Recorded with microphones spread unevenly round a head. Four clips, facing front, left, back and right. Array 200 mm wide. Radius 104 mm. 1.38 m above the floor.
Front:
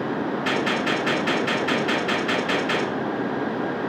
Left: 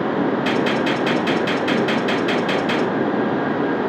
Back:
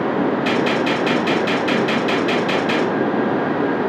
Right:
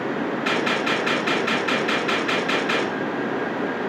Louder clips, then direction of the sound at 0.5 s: Left 4 dB, back 5 dB; 110° left.